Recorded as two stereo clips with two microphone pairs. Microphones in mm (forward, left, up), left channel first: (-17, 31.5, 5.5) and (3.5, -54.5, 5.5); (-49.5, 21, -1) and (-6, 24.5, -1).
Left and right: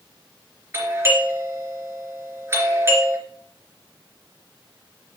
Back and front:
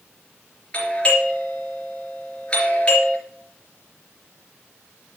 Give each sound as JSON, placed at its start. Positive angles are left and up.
{"t": 0.7, "sound": "a doorbell", "azimuth_deg": -120, "distance_m": 3.0}